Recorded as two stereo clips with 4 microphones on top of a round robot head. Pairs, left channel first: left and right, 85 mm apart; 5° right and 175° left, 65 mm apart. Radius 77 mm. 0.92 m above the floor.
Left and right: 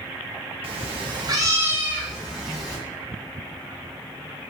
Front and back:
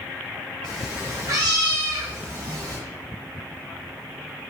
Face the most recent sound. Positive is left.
turn(degrees=180)